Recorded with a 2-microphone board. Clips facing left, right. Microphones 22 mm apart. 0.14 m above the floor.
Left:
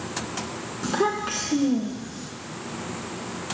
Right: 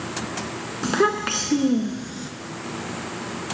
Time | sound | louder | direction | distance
0.8 | a child speaking | right 4 dB | 25° right (ahead or behind) | 0.9 m